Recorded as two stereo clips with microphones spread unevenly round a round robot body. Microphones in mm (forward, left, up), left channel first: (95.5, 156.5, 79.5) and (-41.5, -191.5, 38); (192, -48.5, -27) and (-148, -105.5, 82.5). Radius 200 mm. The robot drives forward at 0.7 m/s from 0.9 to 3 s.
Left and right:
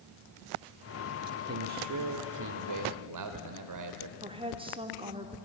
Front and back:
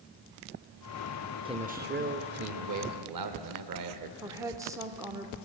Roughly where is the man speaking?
Right.